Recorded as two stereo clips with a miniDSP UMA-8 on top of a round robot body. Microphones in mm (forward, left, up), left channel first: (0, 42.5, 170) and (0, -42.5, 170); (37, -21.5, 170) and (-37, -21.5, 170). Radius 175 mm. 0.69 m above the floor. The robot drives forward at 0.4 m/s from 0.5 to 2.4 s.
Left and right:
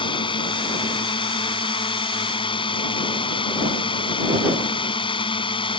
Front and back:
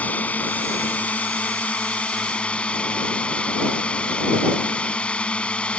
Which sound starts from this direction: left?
A drone, at 0.0 s.